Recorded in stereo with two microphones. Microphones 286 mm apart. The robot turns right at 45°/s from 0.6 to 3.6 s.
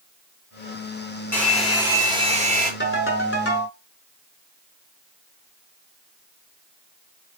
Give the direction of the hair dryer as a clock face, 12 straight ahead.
6 o'clock.